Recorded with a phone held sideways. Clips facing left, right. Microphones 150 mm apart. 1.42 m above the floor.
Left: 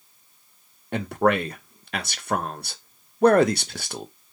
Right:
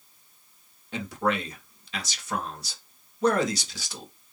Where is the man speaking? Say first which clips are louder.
Left 6 dB; 60° left (ahead or behind), 0.5 m.